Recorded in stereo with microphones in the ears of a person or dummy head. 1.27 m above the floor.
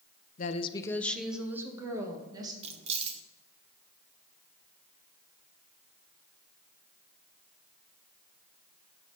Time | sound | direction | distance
0.4 | a woman speaking | 40° left (ahead or behind) | 0.7 m
2.6 | keys jangling | 40° right (ahead or behind) | 0.8 m